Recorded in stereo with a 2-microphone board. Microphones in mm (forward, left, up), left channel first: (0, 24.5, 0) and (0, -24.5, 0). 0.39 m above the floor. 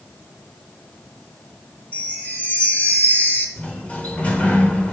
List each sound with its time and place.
1.9 s a chime: 40° left (ahead or behind), 1.0 m
3.6 s a sliding door: 30° left (ahead or behind), 1.1 m